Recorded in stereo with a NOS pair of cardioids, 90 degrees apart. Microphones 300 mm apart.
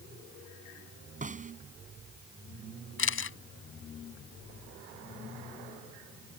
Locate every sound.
1.2 s a snare drum: 25° right
3.0 s a camera shutter: 45° left